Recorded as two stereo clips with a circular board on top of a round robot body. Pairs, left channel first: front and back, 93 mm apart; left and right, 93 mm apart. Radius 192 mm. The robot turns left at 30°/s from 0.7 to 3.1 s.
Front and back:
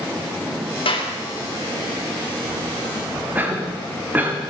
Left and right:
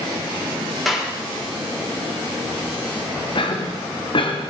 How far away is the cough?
About 1.7 m.